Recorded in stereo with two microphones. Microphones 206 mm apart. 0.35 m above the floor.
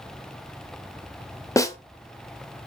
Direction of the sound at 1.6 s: 15° left (ahead or behind).